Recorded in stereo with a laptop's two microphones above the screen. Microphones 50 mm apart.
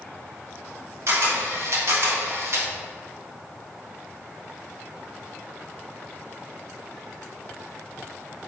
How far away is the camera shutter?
About 3.5 m.